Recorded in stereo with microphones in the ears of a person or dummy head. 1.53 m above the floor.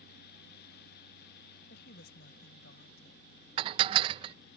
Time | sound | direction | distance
1.7 | a woman speaking | 65° left (ahead or behind) | ?
3.6 | dishes clattering | 30° right (ahead or behind) | ?